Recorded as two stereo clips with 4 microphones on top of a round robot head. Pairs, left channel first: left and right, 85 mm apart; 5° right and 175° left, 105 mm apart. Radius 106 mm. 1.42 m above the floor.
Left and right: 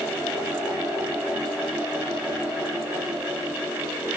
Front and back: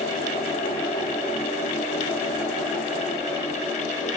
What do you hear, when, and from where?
Only background noise.